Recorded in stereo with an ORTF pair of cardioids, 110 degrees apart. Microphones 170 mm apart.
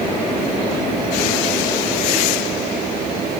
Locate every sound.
Only background noise.